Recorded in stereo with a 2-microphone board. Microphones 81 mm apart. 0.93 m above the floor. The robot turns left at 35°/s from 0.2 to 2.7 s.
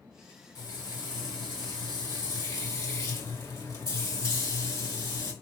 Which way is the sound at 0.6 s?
125° left.